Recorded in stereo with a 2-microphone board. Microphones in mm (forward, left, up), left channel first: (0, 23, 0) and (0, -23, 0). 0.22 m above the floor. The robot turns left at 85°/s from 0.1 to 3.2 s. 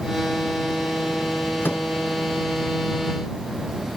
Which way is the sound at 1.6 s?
50° left (ahead or behind).